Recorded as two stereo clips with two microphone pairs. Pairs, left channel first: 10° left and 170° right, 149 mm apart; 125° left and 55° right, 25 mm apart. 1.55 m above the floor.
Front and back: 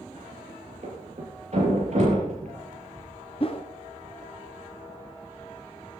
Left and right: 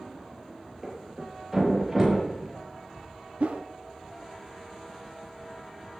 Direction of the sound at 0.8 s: 135° right.